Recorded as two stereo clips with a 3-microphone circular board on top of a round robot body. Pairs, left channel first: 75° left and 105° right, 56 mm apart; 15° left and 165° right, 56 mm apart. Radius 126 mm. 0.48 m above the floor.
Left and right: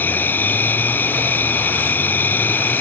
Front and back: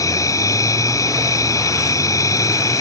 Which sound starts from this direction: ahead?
An insect, at 0.0 s.